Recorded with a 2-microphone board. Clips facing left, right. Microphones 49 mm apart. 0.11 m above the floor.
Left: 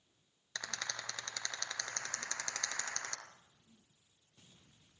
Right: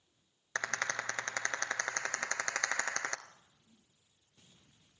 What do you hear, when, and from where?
0.6 s a rattle: 45° right (ahead or behind), 1.5 m